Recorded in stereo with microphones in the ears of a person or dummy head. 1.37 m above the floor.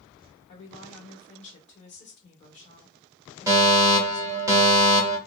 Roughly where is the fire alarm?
Centre.